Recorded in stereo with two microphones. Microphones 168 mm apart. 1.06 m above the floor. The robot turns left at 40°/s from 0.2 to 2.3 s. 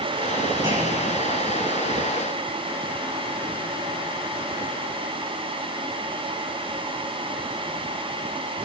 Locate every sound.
0.6 s a clunk: 25° right (ahead or behind), 5 m; by 1.1 s 40° right (ahead or behind), 5 m